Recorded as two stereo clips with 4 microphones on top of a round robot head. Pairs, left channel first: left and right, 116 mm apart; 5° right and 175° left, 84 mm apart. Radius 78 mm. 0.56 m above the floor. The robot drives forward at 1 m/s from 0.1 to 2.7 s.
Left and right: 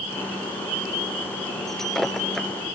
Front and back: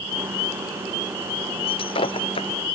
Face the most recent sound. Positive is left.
turn(degrees=5)